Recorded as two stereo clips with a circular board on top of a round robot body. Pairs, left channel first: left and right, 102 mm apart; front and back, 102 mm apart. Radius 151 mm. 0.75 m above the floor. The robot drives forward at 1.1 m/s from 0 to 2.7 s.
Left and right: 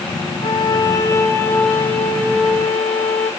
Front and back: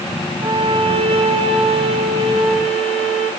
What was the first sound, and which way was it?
A violin, 130° left.